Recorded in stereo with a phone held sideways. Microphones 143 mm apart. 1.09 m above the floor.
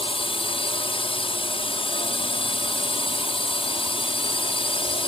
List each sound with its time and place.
0.0 s a drone: 40° left (ahead or behind)